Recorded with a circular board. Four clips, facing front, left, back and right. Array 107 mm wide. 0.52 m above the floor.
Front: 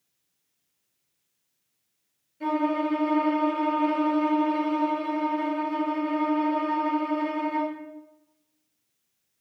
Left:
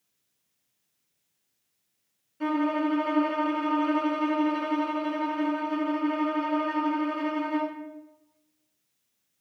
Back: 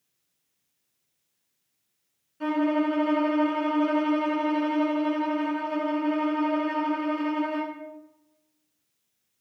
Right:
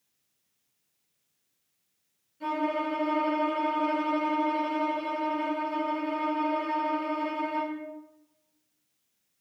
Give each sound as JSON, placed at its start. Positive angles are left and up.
{"t": 2.4, "sound": "a violin", "azimuth_deg": 135, "distance_m": 3.0}